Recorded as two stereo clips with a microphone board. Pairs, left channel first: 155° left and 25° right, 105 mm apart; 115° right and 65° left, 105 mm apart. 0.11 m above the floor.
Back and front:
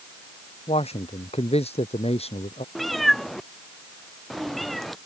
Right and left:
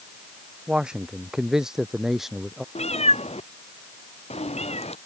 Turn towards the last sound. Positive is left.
turn(degrees=-115)